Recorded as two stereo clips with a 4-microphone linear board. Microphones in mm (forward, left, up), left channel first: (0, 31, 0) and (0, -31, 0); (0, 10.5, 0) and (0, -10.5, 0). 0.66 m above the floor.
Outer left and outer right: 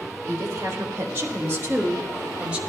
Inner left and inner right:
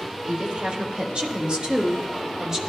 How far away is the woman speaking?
About 2.5 m.